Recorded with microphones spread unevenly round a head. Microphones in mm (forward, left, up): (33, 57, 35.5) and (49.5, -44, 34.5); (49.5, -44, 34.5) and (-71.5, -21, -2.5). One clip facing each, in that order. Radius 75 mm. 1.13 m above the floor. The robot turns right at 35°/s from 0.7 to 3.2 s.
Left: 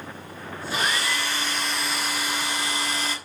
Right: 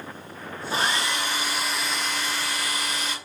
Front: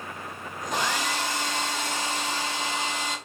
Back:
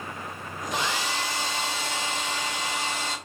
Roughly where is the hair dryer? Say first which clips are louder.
Right 1 dB, front 1 dB; ahead right.